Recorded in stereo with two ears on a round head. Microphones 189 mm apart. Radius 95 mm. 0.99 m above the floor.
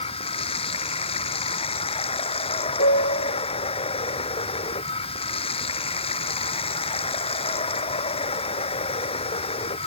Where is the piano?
50° left (ahead or behind).